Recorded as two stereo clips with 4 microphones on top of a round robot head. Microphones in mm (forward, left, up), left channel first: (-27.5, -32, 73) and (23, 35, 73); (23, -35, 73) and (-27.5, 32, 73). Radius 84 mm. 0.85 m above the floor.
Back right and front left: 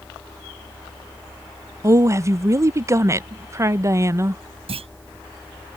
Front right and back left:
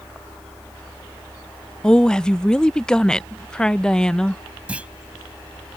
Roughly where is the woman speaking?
Ahead left.